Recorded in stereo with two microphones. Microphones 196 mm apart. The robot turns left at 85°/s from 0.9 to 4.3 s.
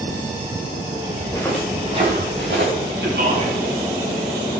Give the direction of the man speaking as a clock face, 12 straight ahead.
3 o'clock.